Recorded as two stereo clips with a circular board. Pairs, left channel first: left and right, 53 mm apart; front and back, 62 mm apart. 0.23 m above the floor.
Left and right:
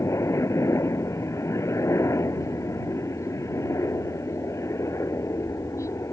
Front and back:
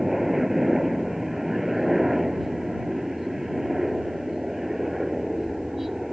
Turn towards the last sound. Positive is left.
turn(degrees=95)